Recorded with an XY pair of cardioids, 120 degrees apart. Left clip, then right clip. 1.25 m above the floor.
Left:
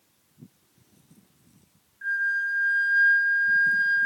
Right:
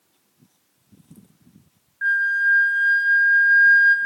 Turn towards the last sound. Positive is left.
turn(degrees=-70)